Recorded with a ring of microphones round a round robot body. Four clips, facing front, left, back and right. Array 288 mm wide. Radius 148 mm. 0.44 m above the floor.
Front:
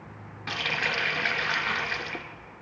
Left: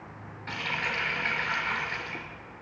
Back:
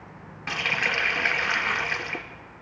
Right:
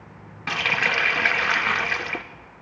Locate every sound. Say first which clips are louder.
0.5 s a running tap: right 8 dB, back 2 dB; 100° right, 0.7 m